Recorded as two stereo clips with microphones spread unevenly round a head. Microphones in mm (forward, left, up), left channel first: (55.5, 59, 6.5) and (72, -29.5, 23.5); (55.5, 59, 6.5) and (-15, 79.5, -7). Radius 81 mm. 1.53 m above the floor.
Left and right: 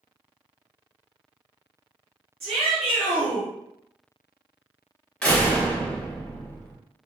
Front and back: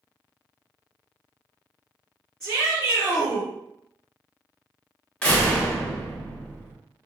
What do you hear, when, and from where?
2.4 s a shout: 100° right, 1.5 m
5.2 s a door slam: 15° left, 0.7 m